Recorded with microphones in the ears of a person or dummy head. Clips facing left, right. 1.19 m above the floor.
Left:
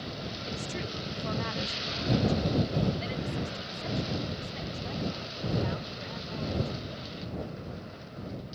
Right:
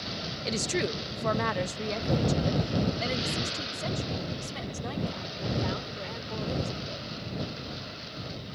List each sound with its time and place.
0.5 s a woman speaking: 70° right (ahead or behind); by 7.1 s 55° right (ahead or behind)